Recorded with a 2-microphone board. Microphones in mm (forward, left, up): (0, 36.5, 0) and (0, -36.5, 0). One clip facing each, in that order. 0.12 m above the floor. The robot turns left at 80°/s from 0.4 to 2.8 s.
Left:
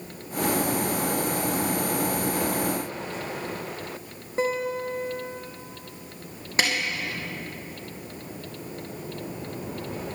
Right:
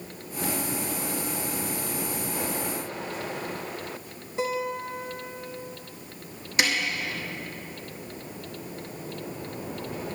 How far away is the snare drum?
About 2.5 m.